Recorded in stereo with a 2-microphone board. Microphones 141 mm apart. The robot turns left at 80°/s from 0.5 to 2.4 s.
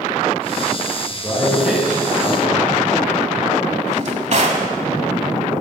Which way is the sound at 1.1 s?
40° left.